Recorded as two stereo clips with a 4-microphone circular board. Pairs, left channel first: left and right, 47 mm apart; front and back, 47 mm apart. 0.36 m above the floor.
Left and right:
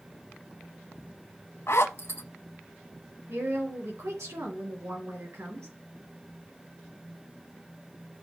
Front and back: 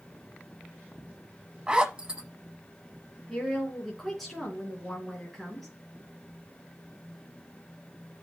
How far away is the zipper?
About 1.0 m.